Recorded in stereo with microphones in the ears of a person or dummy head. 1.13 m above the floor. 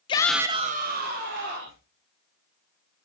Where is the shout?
25° left (ahead or behind), 0.8 m; by 1.8 s 60° right (ahead or behind), 2.5 m.